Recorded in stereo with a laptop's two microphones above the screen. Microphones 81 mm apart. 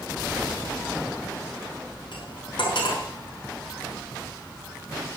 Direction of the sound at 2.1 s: 70° left (ahead or behind).